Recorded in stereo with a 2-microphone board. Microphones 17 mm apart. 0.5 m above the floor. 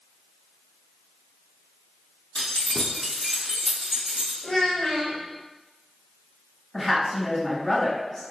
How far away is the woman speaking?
About 1.2 m.